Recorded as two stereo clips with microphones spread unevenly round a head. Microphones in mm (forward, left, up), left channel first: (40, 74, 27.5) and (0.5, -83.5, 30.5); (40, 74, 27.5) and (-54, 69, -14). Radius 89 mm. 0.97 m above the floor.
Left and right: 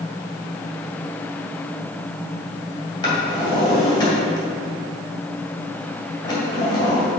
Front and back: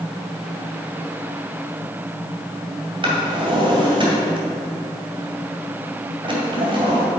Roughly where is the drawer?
Behind left.